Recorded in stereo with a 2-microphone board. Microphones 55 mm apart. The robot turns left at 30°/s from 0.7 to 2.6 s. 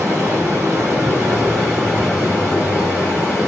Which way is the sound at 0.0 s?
145° right.